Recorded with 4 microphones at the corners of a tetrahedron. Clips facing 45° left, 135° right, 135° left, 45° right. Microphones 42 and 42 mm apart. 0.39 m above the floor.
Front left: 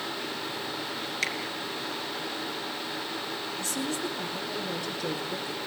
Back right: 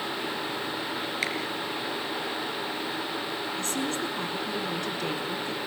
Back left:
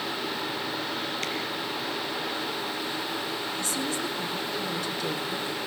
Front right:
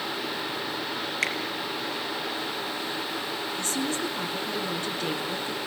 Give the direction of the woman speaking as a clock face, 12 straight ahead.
3 o'clock.